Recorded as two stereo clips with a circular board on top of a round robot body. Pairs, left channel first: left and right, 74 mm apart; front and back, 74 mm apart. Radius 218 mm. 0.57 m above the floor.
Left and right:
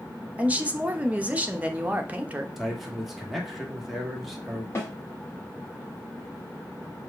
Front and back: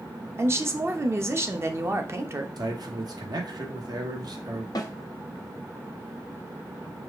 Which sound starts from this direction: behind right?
A woman speaking, at 0.4 s.